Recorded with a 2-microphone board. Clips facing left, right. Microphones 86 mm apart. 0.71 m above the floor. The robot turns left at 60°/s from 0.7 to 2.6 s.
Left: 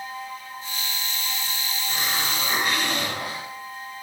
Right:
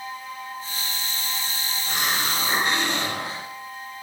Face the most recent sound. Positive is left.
turn(degrees=-150)